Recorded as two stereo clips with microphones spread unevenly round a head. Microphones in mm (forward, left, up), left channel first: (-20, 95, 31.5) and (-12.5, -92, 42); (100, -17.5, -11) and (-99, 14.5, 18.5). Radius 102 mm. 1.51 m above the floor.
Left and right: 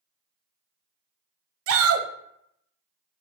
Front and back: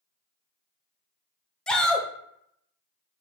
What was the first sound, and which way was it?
A shout, 95° right.